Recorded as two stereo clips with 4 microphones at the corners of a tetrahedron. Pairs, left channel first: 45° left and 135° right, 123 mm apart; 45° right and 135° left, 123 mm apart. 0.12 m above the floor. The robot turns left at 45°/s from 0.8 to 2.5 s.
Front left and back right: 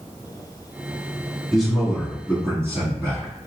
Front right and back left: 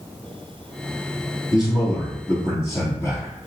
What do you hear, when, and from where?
1.5 s a man speaking: 40° right, 1.7 m; by 3.4 s 85° right, 1.7 m